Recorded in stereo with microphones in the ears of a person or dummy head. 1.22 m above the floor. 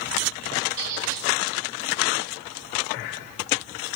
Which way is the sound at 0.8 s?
50° right (ahead or behind).